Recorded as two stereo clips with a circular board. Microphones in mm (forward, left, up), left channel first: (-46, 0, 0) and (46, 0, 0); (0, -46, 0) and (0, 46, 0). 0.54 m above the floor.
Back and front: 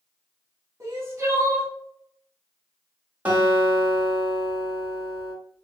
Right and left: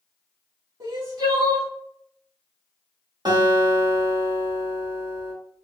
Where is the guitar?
70° left, 1.4 m.